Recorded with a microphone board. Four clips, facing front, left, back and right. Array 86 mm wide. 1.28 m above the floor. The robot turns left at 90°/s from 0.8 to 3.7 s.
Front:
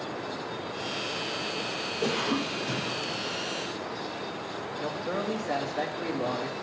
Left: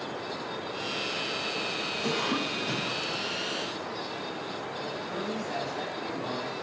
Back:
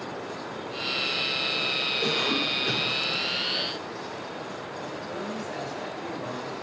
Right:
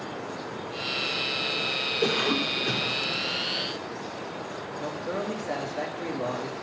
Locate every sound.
2.0 s a cough: 70° right, 4 m; by 3.0 s 155° right, 4 m
4.8 s a man speaking: 40° right, 3 m